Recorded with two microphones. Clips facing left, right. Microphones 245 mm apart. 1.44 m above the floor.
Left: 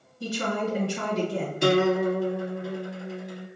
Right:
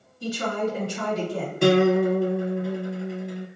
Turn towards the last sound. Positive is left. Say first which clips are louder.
# right 4 dB
turn(degrees=-55)  # may be behind; listen again after turning